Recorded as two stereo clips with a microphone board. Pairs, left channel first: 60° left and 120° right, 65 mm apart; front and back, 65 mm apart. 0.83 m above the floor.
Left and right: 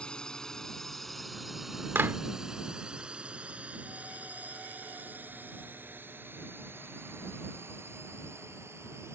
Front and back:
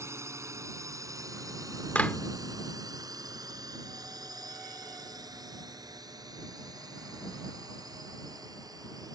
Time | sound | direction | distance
0.0 | a drone | 135° left | ?
1.9 | a clap | 65° right | ?